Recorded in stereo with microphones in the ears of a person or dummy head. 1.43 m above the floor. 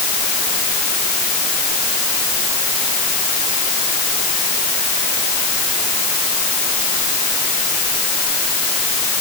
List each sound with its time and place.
Only background noise.